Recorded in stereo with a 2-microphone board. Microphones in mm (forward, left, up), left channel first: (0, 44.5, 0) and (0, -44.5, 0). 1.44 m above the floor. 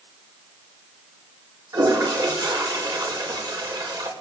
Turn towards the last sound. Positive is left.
turn(degrees=-50)  # may be behind; listen again after turning